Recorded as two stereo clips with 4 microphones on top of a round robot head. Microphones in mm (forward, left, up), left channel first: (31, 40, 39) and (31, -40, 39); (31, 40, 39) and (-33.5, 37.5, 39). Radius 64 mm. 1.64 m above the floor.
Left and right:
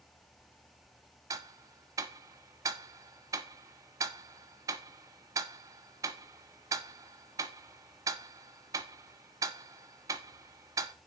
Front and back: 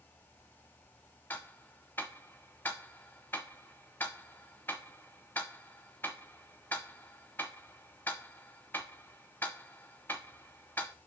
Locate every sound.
1.3 s ticking: 65° right, 0.6 m